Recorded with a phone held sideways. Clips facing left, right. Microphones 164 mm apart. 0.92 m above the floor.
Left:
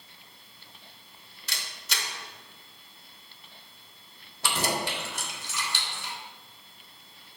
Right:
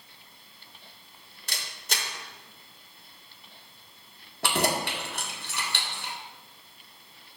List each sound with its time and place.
1.5 s a camera shutter: 50° right (ahead or behind), 1.8 m
4.4 s keys jangling: 60° right (ahead or behind), 1.5 m